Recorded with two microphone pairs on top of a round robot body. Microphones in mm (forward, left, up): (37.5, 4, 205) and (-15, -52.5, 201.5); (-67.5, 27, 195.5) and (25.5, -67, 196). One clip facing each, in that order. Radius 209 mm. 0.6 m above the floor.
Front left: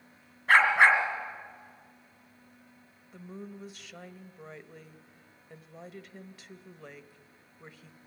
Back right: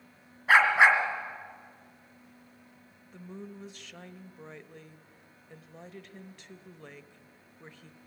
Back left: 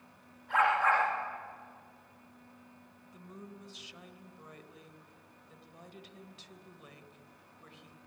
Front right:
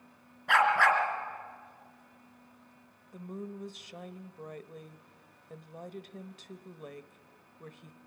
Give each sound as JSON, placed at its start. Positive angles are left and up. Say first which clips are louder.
{"t": 0.5, "sound": "a dog barking", "louder": "even, front right 2 dB", "azimuth_deg": -55, "distance_m": 3.0}
{"t": 3.1, "sound": "a woman speaking", "louder": "even, front right 9 dB", "azimuth_deg": -40, "distance_m": 1.1}